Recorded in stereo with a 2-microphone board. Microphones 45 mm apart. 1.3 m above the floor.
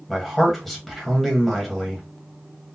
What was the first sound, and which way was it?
A man speaking, 5° left (ahead or behind).